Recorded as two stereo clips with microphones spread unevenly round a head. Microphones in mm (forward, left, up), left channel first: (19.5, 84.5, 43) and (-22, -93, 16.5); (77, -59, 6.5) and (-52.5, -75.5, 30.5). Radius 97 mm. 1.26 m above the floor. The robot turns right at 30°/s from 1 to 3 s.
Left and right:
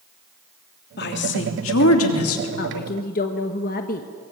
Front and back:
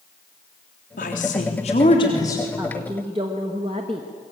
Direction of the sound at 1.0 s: 40° left.